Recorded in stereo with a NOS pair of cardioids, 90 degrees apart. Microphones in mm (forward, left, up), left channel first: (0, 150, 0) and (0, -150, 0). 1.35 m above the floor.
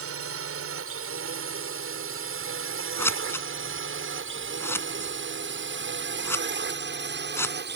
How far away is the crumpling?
I don't hear crumpling.